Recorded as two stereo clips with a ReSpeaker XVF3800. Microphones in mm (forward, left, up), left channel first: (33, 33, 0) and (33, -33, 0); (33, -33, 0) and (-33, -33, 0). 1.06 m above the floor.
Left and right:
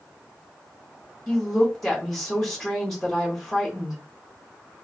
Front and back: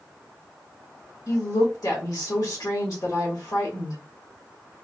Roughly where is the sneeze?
I don't hear a sneeze.